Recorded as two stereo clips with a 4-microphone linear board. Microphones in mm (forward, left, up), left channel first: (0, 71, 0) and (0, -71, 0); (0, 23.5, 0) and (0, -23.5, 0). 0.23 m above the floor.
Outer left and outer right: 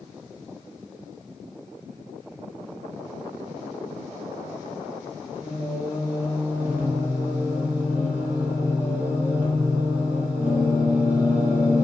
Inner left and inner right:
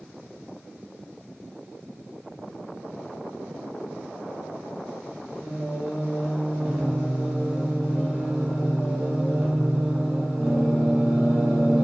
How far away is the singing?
About 0.9 m.